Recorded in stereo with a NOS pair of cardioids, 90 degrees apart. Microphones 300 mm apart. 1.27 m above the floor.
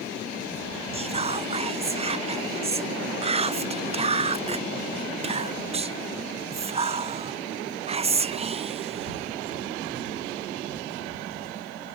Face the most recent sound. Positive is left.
turn(degrees=-20)